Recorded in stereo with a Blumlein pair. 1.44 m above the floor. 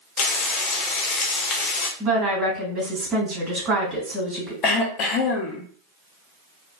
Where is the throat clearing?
30° left, 0.8 m.